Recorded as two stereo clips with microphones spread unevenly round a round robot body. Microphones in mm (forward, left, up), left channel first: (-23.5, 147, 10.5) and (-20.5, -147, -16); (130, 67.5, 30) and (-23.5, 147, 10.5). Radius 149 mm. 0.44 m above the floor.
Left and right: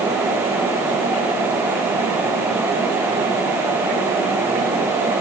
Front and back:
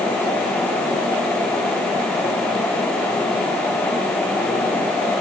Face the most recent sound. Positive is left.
No sound to turn to.